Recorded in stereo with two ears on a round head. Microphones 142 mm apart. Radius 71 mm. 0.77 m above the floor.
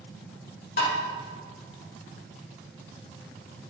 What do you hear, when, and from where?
0.8 s tapping: 65° left (ahead or behind), 2.5 m